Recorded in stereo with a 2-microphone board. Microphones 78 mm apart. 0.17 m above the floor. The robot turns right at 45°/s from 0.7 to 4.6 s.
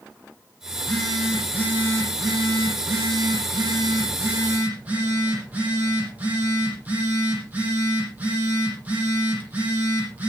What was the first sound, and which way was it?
A phone buzzing, 165° left.